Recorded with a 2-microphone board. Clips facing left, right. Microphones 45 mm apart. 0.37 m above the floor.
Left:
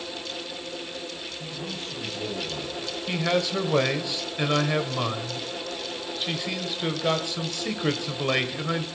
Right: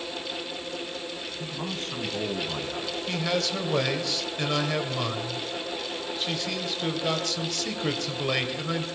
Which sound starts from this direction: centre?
A man speaking, at 3.1 s.